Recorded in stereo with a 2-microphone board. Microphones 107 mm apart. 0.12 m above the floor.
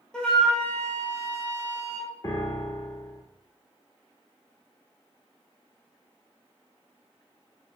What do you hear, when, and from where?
0.1 s a flute: 10° left (ahead or behind), 1.5 m
2.2 s a piano: 35° left (ahead or behind), 0.6 m